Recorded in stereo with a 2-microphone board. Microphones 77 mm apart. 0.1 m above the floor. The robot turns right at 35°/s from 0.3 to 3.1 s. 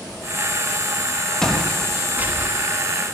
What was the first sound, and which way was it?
Footsteps, 10° left (ahead or behind).